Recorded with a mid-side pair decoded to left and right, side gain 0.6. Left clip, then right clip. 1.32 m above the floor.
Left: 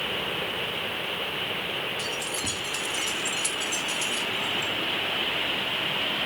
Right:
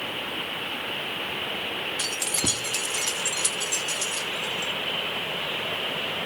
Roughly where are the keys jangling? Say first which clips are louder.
Right 2 dB; ahead right.